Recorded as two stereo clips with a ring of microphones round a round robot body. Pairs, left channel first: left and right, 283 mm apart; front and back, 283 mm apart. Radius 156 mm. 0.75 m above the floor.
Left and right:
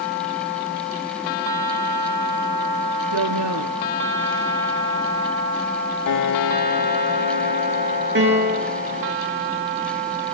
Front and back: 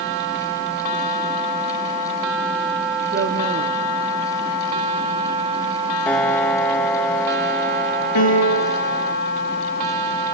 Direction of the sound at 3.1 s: 120° right.